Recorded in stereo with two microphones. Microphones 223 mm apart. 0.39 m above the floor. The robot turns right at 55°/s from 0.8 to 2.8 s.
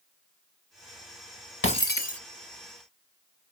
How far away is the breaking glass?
About 1.6 m.